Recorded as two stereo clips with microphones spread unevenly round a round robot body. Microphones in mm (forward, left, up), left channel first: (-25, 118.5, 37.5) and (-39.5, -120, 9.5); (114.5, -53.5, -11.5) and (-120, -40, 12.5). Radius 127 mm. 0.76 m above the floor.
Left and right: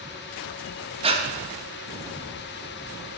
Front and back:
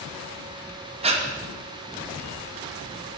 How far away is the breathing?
About 1.0 m.